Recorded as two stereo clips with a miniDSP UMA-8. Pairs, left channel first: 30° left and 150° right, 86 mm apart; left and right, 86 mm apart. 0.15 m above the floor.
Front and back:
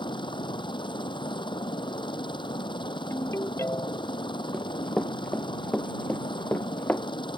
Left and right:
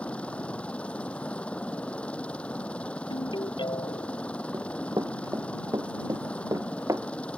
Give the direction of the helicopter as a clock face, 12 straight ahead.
12 o'clock.